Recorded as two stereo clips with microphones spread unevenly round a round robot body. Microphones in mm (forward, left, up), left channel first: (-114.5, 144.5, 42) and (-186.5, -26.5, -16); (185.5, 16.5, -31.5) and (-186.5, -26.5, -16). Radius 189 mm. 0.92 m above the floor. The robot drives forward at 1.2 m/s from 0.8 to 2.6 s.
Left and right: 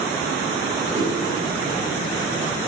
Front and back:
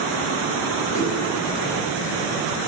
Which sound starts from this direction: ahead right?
A whoosh, at 0.9 s.